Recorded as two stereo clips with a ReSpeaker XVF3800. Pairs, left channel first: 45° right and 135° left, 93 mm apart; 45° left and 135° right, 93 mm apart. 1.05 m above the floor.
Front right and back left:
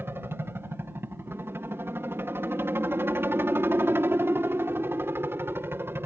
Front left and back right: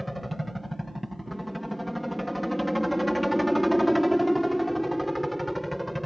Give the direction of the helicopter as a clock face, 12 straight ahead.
8 o'clock.